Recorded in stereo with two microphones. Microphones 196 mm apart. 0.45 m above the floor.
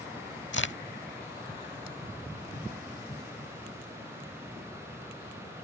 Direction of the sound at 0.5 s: 75° left (ahead or behind).